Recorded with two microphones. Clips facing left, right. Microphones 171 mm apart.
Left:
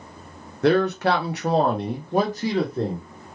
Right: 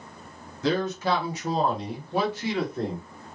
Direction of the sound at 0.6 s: 60° left (ahead or behind).